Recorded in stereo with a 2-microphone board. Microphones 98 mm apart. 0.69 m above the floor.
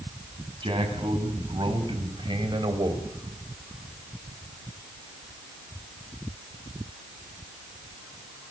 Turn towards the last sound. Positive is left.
turn(degrees=-50)  # may be behind; listen again after turning